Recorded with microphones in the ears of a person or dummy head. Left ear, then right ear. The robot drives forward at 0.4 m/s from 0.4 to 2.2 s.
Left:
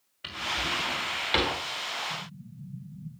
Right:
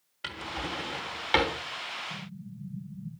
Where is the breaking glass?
I don't hear breaking glass.